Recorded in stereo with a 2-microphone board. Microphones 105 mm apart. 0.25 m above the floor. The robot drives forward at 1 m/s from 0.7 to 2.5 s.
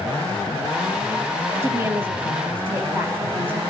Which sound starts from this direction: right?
A woman speaking, at 1.6 s.